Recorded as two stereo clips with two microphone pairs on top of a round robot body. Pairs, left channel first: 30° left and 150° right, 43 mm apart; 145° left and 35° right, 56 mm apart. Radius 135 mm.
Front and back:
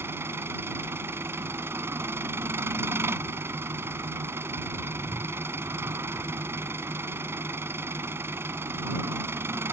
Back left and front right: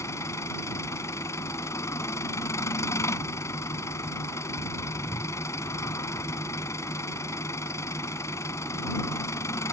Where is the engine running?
Straight behind.